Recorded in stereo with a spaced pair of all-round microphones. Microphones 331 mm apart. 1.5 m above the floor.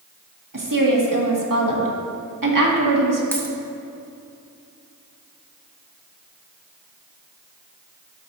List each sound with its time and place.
0.5 s a woman speaking: 70° right (ahead or behind), 1.8 m
3.3 s a dropped coin: 5° left (ahead or behind), 1.3 m